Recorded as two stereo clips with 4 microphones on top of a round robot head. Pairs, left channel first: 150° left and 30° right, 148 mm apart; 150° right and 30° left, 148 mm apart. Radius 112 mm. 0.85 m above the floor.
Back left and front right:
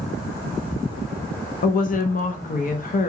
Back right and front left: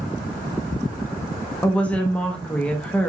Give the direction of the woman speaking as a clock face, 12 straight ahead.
8 o'clock.